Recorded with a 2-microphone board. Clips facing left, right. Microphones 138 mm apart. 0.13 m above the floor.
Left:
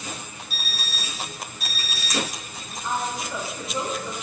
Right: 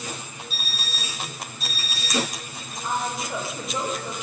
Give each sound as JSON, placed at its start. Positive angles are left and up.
{"t": 0.5, "sound": "an alarm clock", "side_deg": 55, "distance_m": 0.9}
{"t": 2.8, "sound": "a woman speaking", "side_deg": -40, "distance_m": 1.9}